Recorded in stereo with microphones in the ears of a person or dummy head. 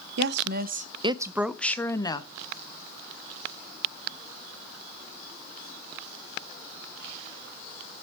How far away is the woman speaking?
About 0.9 m.